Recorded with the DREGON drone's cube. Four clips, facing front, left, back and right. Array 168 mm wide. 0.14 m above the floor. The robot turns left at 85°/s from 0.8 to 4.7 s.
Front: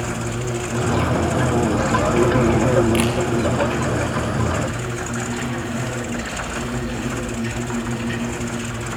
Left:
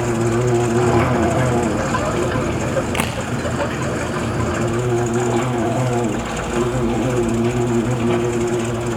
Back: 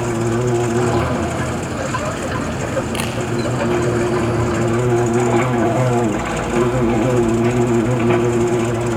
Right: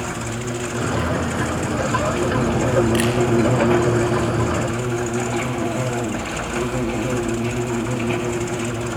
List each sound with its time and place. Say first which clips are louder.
0.0 s an insect: left 9 dB, back 8 dB; 130° left, 4 m; by 9.0 s 160° left, 4 m
3.0 s a camera shutter: right 3 dB, front 4 dB; 105° left, 5.5 m; by 3.2 s 90° left, 5.5 m